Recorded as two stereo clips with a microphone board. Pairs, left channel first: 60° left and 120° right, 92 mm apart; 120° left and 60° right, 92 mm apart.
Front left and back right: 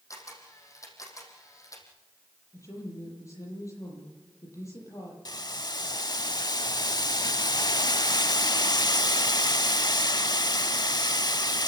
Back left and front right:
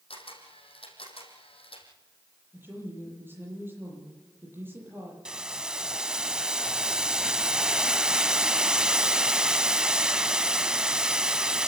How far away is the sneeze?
No sneeze in this recording.